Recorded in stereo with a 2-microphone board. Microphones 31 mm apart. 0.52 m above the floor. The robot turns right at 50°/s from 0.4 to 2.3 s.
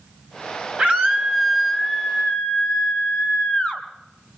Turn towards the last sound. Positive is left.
turn(degrees=35)